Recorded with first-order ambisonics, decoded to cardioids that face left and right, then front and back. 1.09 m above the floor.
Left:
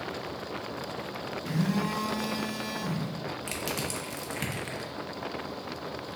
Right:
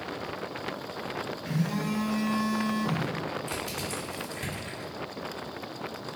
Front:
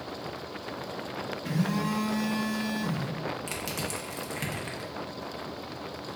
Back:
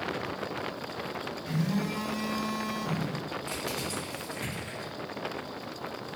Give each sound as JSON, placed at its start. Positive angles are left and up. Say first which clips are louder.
{"t": 1.4, "sound": "a phone buzzing", "louder": "left 1 dB, front 4 dB", "azimuth_deg": 20, "distance_m": 0.9}
{"t": 3.5, "sound": "crushing", "louder": "left 1 dB, even", "azimuth_deg": 55, "distance_m": 0.8}